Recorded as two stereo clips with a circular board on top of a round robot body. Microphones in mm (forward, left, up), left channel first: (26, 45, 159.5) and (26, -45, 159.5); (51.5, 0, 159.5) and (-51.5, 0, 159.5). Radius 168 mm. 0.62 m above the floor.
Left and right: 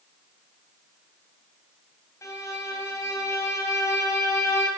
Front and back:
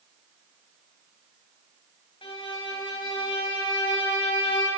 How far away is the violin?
About 6.5 m.